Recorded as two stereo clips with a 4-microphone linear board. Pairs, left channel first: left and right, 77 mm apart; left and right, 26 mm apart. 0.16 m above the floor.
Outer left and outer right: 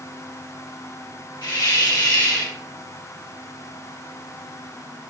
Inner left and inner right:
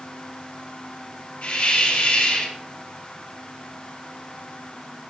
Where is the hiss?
65° left (ahead or behind), 4 m.